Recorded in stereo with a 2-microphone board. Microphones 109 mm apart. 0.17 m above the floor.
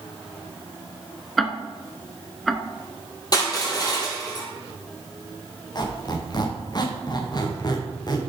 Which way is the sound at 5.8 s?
40° left (ahead or behind).